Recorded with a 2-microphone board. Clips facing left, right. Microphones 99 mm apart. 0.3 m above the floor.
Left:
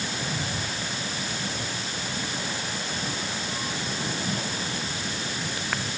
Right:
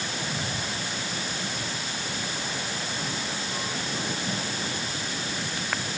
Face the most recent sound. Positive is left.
No sound to turn to.